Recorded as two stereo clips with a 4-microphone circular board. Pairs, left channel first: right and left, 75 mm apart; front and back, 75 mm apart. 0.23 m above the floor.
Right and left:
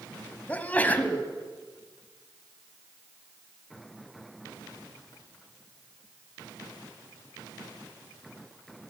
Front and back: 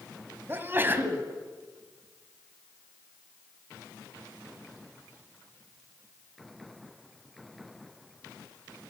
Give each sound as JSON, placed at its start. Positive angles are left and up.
{"t": 0.5, "sound": "a sneeze", "azimuth_deg": -145, "distance_m": 1.2}